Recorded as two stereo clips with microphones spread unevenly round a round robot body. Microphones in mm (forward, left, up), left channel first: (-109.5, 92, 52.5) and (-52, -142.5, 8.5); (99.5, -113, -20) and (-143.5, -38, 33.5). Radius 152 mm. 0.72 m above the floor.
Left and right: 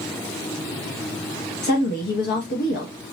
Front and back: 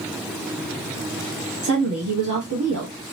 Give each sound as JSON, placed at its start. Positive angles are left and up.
{"t": 1.6, "sound": "a woman speaking", "azimuth_deg": 140, "distance_m": 0.9}